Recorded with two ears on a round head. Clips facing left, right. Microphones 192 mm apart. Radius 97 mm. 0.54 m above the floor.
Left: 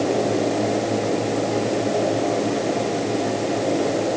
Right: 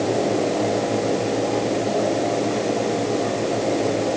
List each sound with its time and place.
Only background noise.